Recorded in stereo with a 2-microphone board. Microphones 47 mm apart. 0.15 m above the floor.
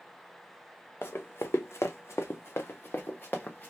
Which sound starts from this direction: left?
Running footsteps, at 1.0 s.